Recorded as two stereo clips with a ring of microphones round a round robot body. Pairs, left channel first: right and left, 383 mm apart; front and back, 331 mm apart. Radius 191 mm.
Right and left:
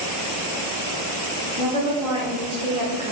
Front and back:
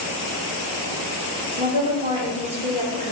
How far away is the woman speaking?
About 0.9 m.